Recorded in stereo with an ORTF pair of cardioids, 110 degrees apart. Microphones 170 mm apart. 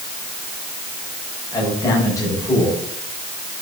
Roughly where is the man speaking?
Ahead.